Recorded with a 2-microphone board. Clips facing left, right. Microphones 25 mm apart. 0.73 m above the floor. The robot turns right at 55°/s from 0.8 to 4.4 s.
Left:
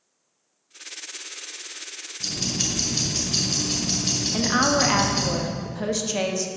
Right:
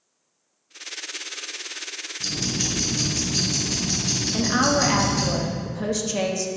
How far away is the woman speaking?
About 0.7 m.